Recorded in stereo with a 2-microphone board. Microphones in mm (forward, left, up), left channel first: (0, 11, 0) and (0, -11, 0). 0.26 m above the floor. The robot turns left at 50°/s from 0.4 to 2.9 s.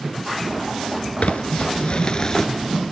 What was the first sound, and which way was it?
Crumpling, 85° left.